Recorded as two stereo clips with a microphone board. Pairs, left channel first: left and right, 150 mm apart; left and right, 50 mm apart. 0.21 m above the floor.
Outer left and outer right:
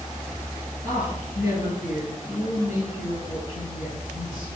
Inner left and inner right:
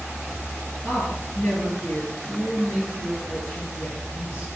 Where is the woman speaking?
55° left (ahead or behind), 3.5 m.